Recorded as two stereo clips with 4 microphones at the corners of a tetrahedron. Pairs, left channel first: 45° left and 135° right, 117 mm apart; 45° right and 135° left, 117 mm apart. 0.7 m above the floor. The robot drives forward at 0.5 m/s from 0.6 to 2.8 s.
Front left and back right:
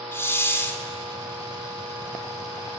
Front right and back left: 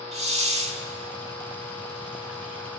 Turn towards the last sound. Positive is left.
turn(degrees=140)